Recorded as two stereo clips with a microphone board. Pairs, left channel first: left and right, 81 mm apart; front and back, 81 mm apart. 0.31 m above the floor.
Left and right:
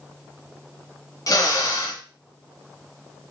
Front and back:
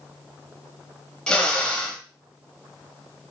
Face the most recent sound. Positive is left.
turn(degrees=75)